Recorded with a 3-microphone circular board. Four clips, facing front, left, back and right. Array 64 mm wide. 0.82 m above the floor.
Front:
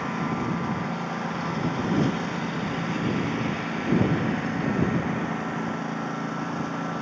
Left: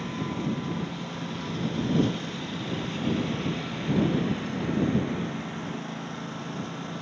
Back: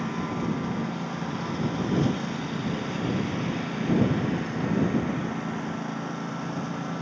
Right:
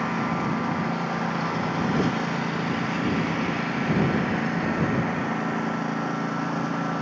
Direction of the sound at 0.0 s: 75° right.